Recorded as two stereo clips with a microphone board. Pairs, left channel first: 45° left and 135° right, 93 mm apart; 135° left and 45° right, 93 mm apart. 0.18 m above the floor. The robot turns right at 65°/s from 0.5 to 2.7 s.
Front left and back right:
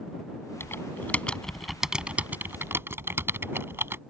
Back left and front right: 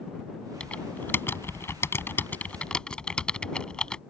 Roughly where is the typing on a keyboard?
Ahead left.